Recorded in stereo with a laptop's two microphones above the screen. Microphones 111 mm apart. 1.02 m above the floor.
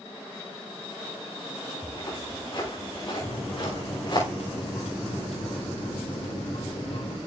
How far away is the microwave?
About 3 m.